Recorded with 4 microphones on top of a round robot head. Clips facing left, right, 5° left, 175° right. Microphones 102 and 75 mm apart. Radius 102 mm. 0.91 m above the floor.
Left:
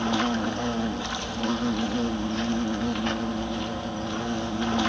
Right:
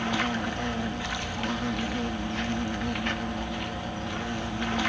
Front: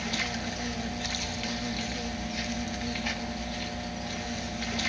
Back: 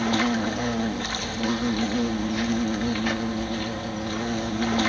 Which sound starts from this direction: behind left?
An insect, at 0.0 s.